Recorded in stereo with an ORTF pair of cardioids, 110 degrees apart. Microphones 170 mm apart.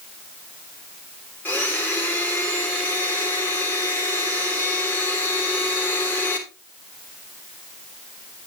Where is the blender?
10° left, 3 m.